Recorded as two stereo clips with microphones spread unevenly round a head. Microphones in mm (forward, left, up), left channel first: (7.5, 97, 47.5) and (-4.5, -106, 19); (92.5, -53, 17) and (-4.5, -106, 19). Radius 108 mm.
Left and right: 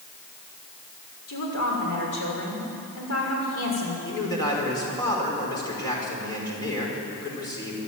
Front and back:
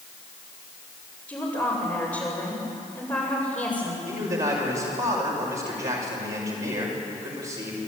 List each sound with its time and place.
1.3 s a woman speaking: 100° left, 6.5 m
4.0 s a man speaking: 160° left, 5.5 m